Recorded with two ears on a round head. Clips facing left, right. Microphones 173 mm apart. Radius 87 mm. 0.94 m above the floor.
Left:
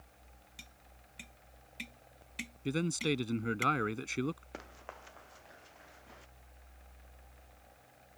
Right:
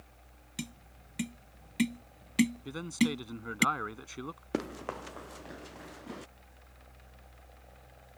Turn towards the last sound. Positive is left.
turn(degrees=-65)  # may be behind; listen again after turning